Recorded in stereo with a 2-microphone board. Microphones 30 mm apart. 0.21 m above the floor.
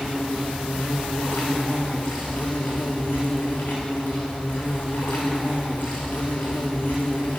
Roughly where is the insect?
Left.